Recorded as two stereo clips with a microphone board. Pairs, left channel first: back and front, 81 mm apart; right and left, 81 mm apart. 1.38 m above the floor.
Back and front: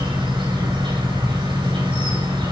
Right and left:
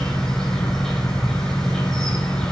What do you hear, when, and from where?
0.0 s an insect: 10° right, 9 m